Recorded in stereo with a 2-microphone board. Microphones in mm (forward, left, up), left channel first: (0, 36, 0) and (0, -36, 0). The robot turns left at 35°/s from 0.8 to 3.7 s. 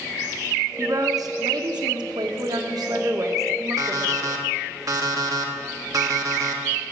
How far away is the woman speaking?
About 1.3 m.